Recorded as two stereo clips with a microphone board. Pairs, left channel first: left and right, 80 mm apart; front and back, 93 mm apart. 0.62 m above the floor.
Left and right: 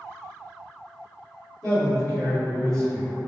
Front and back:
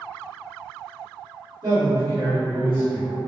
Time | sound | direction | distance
1.6 | a man speaking | 165° left | 1.9 m